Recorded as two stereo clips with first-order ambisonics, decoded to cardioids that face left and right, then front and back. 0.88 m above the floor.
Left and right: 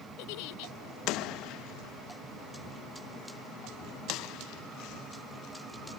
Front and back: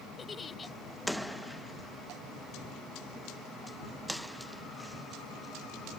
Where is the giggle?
75° left.